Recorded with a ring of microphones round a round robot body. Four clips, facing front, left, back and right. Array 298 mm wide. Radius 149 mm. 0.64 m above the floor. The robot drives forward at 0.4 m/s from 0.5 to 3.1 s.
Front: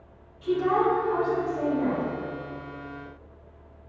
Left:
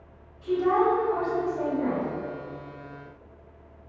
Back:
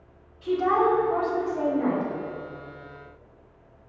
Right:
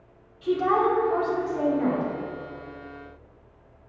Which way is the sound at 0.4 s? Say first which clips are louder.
Even, back 1 dB; 110° right.